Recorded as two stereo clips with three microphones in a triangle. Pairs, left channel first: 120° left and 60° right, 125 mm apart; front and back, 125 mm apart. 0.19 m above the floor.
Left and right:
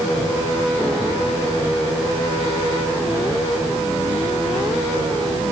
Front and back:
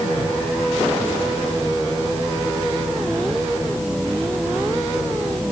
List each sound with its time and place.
Only background noise.